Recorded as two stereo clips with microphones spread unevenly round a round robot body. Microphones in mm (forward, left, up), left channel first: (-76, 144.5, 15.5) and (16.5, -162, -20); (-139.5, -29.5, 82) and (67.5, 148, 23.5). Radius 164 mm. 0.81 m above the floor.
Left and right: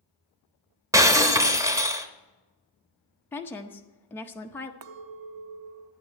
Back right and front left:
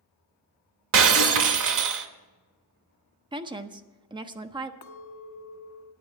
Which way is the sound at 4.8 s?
100° right.